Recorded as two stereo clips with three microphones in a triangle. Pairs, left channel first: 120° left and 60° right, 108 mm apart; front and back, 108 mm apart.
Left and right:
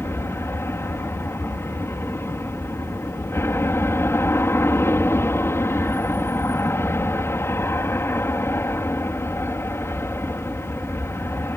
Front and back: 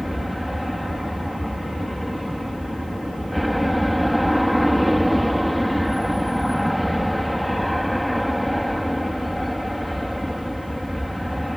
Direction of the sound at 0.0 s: 90° left.